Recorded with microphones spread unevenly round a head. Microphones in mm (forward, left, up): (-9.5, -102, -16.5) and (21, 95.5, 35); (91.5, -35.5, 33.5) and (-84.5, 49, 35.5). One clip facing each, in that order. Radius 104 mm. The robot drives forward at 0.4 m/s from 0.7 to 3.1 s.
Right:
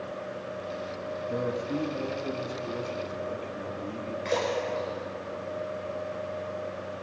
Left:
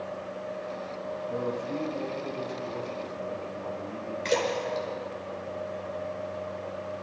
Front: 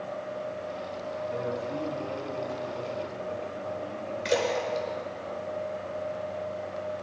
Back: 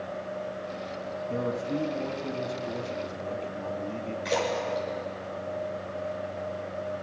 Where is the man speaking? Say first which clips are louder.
Right 2 dB, back 4 dB; 165° right, 2 m; by 4.2 s 170° right, 3 m.